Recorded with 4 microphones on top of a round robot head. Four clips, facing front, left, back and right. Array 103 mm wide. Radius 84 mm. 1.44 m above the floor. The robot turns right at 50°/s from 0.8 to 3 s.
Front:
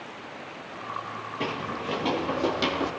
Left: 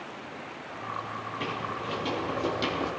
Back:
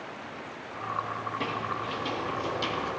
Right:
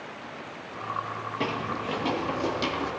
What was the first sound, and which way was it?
Footsteps, 70° right.